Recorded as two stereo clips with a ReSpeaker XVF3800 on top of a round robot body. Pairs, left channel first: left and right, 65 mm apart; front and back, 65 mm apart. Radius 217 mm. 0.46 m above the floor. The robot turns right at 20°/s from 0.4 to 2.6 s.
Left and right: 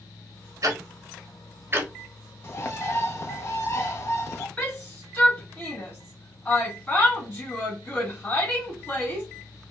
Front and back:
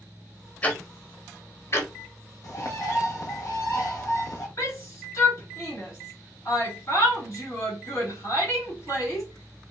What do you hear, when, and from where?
0.6 s ticking: 65° right, 1.1 m; by 1.9 s 40° right, 1.1 m
2.4 s a bird: 35° left, 0.7 m; by 4.5 s 40° left, 0.7 m
4.6 s a shout: 20° left, 1.9 m